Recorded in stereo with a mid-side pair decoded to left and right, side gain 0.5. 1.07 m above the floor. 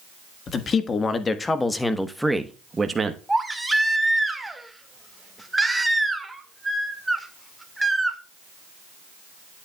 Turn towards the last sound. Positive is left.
turn(degrees=-10)